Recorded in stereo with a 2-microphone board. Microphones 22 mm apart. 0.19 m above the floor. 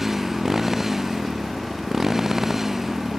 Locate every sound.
0.0 s a motorcycle: 15° right (ahead or behind); by 3.2 s 20° right (ahead or behind)